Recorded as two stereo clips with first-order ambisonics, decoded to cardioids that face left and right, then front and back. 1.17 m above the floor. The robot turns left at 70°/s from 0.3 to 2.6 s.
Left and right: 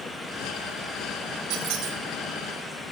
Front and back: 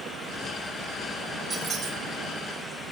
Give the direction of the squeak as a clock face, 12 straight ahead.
4 o'clock.